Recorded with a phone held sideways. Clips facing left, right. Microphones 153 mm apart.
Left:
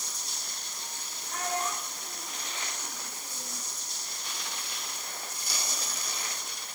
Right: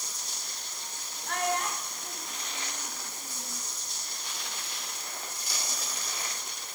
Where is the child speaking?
80° right, 5.5 m; by 3.6 s 55° right (ahead or behind), 5.5 m.